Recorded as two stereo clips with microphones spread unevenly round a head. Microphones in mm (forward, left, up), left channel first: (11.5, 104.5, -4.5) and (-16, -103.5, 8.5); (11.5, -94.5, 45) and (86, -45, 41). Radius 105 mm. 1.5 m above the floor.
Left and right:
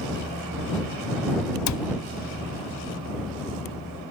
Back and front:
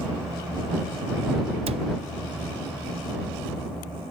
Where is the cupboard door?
70° left.